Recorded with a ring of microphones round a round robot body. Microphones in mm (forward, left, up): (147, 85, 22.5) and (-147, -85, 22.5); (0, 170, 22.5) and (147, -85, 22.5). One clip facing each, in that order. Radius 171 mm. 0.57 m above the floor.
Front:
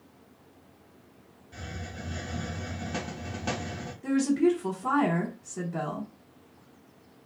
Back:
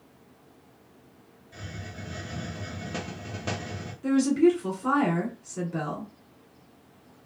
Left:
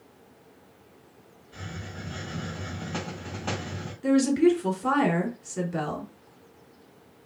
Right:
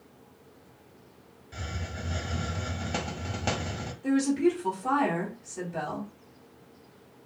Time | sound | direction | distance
1.5 | a hiss | 60° right | 1.0 m
4.0 | a woman speaking | 135° left | 1.4 m